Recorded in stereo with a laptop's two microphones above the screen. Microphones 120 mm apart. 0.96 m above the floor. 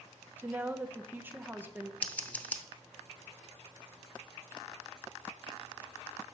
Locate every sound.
0.4 s a woman speaking: 15° right (ahead or behind), 0.5 m
2.0 s scissors: 15° left (ahead or behind), 0.8 m